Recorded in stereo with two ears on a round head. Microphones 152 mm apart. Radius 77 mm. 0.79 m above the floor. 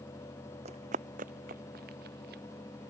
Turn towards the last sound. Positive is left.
turn(degrees=-60)  # may be behind; listen again after turning